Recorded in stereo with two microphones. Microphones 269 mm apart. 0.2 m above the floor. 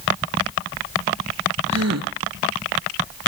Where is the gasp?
70° right (ahead or behind), 2.0 m.